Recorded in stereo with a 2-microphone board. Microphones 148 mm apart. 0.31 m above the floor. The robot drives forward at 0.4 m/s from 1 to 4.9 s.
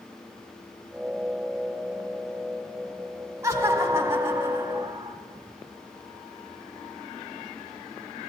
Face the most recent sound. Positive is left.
turn(degrees=-15)  # may be behind; listen again after turning